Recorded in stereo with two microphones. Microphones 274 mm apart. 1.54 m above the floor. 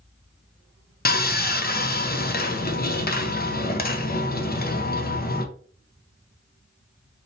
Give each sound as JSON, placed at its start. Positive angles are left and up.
{"t": 1.1, "sound": "sawing", "side_deg": 35, "distance_m": 0.5}